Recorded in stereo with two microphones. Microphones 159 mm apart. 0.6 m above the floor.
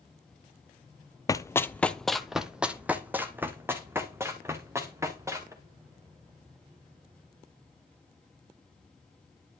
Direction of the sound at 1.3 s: 20° left (ahead or behind).